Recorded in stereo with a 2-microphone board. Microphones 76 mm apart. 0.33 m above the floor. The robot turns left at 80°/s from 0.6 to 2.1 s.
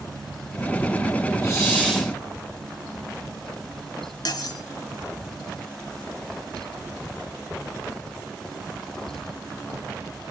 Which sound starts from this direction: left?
Cutlery clinking, at 4.2 s.